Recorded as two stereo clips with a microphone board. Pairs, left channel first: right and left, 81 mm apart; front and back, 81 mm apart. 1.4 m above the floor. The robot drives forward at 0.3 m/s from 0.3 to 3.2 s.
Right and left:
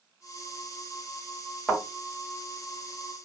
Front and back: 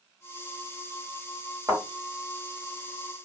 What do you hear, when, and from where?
1.7 s a thud: 175° right, 1.7 m